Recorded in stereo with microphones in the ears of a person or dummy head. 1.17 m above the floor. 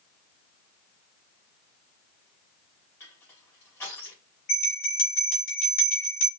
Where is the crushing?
20° left (ahead or behind), 3.5 m.